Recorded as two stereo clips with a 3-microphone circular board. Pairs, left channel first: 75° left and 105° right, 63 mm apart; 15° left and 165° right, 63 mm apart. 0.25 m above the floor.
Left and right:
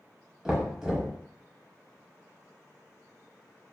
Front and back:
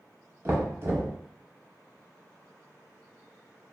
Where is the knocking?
Straight behind, 0.8 m.